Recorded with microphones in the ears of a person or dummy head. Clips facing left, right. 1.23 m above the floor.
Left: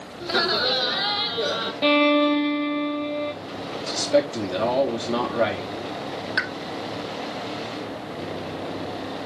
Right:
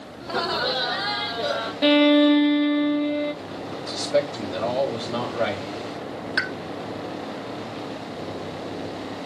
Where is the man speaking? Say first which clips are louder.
Left 2 dB; 70° left (ahead or behind), 3 m.